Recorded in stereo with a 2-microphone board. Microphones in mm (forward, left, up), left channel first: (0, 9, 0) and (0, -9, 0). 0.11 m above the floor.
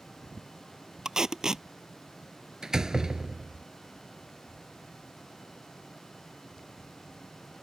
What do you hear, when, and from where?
1.1 s tape being pulled: 45° right (ahead or behind)
2.6 s a door slam: 35° right (ahead or behind)